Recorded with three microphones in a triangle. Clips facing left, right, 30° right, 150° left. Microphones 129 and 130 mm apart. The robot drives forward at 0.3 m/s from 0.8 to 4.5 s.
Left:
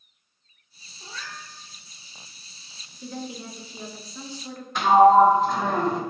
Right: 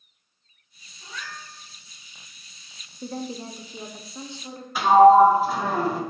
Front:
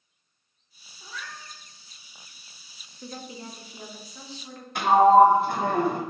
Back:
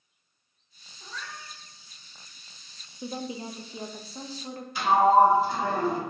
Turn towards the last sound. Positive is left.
turn(degrees=-5)